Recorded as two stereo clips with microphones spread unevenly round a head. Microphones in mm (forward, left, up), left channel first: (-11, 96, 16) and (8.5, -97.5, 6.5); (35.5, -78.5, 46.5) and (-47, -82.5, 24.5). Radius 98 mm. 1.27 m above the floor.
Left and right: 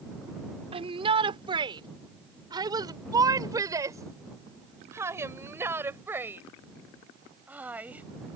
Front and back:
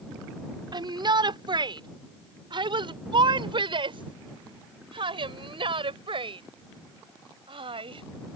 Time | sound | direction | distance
0.7 | a shout | 145° right | ?